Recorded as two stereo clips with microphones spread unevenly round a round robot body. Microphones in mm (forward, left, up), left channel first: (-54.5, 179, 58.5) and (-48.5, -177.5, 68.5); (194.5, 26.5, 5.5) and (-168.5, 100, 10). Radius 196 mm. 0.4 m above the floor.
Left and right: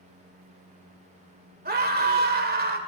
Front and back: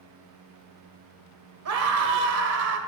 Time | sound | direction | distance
1.6 | a scream | 150° right | 2 m